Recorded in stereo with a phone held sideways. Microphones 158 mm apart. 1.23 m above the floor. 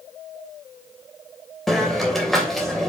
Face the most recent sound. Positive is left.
turn(degrees=0)  # may be behind; listen again after turning